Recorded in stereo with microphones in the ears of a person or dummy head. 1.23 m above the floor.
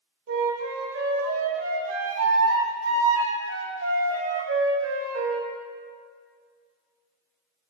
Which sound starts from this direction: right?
A flute, at 0.3 s.